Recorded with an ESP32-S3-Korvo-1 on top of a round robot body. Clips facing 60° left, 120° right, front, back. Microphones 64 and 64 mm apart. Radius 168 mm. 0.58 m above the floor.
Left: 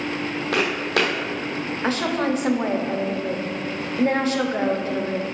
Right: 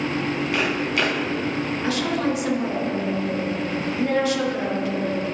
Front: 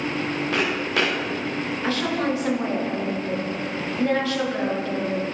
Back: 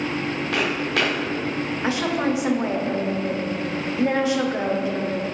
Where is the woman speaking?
105° left, 1.4 m.